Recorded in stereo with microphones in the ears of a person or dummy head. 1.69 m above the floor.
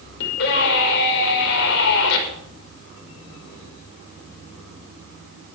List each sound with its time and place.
0.2 s a scream: 70° left (ahead or behind), 5.5 m